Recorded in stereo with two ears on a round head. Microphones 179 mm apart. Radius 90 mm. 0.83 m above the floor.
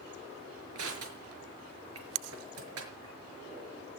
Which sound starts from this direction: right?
Crushing, at 0.8 s.